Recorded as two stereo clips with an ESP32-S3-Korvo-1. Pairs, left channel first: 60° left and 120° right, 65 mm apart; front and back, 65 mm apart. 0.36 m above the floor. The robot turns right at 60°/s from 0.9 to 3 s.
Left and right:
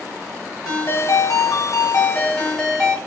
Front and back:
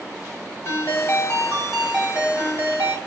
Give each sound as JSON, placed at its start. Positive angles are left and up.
{"t": 0.7, "sound": "a ringtone", "azimuth_deg": 40, "distance_m": 1.7}